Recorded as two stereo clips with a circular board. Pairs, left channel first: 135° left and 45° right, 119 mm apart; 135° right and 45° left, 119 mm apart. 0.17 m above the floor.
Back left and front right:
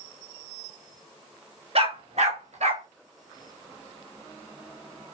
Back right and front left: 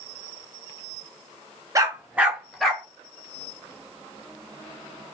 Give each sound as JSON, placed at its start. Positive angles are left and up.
{"t": 1.8, "sound": "a dog barking", "azimuth_deg": -15, "distance_m": 0.8}